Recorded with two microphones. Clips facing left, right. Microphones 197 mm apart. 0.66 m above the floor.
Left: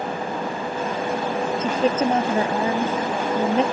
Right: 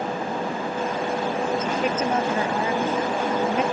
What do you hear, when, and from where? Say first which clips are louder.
1.6 s a woman speaking: left 3 dB; 30° left (ahead or behind)